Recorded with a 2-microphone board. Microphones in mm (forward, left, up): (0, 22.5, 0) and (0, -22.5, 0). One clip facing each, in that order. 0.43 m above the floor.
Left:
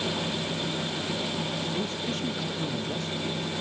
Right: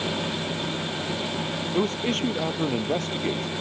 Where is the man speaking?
70° right (ahead or behind).